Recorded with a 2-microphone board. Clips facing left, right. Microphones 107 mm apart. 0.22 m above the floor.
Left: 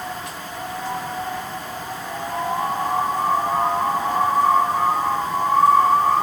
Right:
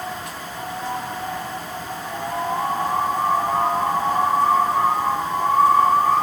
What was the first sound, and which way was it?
Only background noise.